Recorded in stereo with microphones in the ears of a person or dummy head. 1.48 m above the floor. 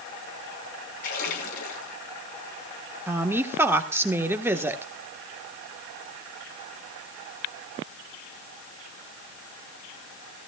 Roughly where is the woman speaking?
Centre.